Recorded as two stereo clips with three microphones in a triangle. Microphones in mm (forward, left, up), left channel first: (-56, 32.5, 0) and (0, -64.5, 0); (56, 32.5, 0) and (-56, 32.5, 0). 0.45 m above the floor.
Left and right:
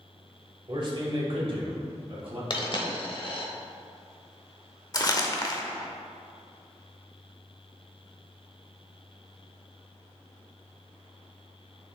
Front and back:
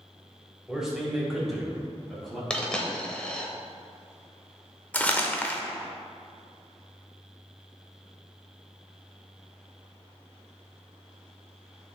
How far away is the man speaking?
About 1.8 m.